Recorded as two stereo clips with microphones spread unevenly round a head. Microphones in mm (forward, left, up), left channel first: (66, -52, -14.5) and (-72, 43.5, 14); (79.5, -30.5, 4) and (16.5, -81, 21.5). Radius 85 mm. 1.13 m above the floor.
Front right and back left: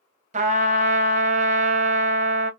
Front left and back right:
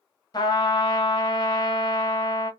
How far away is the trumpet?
About 0.5 m.